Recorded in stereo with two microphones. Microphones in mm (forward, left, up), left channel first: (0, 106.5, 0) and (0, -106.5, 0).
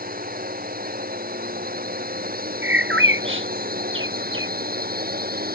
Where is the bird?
65° right (ahead or behind).